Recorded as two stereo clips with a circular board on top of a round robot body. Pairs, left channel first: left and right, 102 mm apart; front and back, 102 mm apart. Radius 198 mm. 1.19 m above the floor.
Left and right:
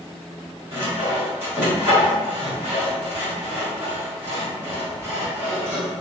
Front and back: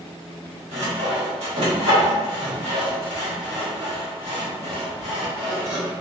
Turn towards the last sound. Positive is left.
turn(degrees=-160)